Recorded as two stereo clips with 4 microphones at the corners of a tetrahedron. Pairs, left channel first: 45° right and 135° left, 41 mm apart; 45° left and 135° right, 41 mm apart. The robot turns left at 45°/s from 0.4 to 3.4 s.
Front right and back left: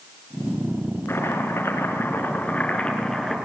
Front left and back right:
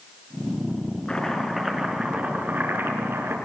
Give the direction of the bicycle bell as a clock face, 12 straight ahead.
No bicycle bell in this recording.